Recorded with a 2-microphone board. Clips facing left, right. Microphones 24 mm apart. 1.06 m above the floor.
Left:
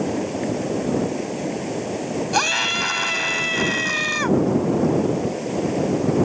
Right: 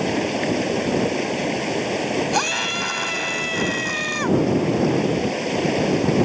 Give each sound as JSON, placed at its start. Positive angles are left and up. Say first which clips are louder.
{"t": 0.0, "sound": "running water", "louder": "right 2 dB", "side_deg": -55}
{"t": 2.3, "sound": "a scream", "louder": "left 2 dB", "side_deg": 10}